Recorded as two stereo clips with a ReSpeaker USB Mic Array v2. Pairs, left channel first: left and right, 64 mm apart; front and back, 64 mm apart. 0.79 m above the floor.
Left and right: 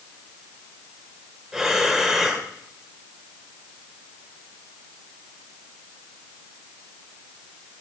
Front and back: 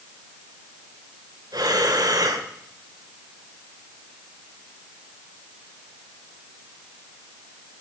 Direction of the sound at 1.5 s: 175° right.